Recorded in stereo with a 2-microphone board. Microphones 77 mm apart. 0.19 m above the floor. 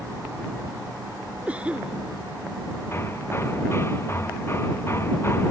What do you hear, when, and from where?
1.5 s a cough: 15° right (ahead or behind)
2.9 s hammering: 35° left (ahead or behind)